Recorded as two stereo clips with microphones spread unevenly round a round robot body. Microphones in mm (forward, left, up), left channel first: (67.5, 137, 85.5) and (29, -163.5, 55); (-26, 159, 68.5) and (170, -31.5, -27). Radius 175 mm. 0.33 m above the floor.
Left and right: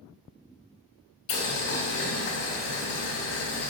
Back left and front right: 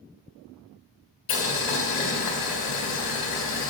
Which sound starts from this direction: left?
Boiling, at 1.3 s.